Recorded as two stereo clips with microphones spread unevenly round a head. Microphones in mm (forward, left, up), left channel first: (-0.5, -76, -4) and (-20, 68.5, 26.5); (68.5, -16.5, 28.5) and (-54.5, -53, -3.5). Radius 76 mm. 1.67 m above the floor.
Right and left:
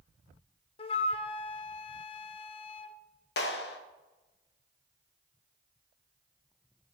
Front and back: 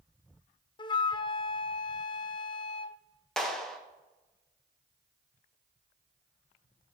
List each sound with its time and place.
0.8 s a flute: 25° right, 0.6 m
3.4 s a clap: 65° right, 1.4 m